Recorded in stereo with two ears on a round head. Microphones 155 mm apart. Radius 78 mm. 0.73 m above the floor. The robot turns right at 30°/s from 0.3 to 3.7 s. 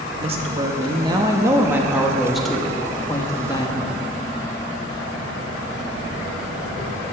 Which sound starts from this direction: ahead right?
A woman speaking, at 0.2 s.